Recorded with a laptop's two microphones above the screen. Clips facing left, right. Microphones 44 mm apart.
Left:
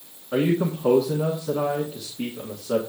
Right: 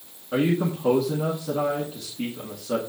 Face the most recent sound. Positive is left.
turn(degrees=-5)  # may be behind; listen again after turning